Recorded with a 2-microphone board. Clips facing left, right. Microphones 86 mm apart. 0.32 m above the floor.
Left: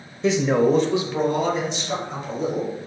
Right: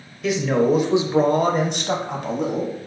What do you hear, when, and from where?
0.2 s a man speaking: 30° left (ahead or behind), 1.0 m; by 2.7 s 70° right (ahead or behind), 2.5 m